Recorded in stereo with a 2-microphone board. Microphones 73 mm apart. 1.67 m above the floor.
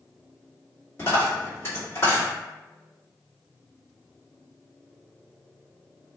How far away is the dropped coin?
About 1.5 m.